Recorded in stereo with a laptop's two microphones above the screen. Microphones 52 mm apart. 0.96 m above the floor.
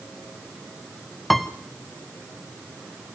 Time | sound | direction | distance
1.3 | a piano | centre (ahead or behind) | 0.9 m